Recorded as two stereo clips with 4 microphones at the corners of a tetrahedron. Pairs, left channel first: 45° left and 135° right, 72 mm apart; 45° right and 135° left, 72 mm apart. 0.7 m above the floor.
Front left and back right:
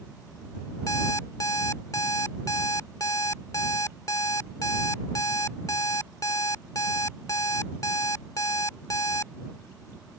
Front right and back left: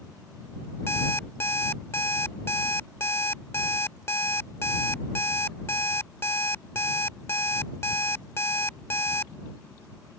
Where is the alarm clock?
10° left.